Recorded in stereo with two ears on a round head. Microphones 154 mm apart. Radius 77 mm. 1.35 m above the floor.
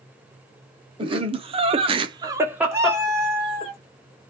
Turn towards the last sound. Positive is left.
turn(degrees=-15)  # may be behind; listen again after turning